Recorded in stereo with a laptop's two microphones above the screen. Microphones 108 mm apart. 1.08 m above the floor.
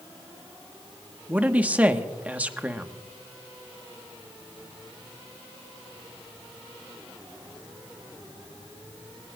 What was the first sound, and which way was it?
A man speaking, 15° right (ahead or behind).